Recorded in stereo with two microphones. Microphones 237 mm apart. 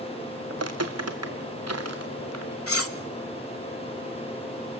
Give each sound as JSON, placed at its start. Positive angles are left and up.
{"t": 0.5, "sound": "footsteps", "side_deg": -75, "distance_m": 1.3}
{"t": 2.7, "sound": "cutlery clinking", "side_deg": 65, "distance_m": 1.0}